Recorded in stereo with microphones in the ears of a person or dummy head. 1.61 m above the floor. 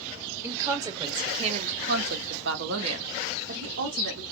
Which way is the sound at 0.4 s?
10° right (ahead or behind).